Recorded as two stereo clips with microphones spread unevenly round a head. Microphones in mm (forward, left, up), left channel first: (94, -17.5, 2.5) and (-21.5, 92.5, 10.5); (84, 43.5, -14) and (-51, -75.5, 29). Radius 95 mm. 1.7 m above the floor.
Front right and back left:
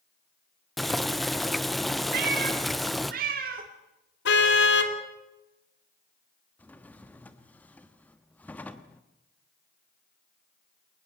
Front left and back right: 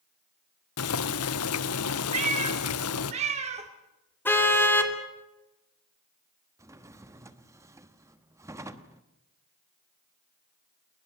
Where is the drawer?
120° right, 1.2 m.